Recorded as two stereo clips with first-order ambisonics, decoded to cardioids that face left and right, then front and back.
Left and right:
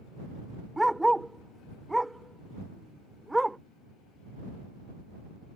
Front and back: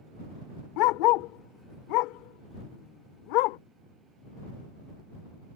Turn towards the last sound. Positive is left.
turn(degrees=-5)